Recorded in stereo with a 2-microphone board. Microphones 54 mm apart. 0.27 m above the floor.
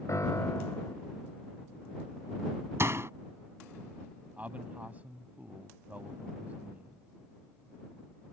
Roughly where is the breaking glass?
No breaking glass in this recording.